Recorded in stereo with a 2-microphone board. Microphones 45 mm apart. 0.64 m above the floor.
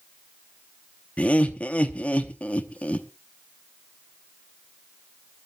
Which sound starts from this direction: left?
Laughter, at 1.2 s.